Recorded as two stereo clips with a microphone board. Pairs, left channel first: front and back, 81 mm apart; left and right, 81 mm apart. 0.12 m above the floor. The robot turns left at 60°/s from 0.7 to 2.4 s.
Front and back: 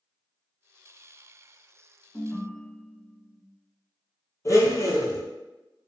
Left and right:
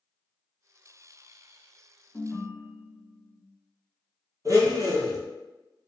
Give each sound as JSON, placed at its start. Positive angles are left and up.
{"t": 2.1, "sound": "a ringtone", "azimuth_deg": 60, "distance_m": 0.7}
{"t": 4.5, "sound": "a blender", "azimuth_deg": -45, "distance_m": 0.7}